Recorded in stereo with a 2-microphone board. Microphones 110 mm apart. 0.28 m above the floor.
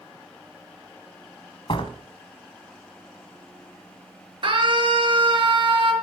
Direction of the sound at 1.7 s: 55° left (ahead or behind).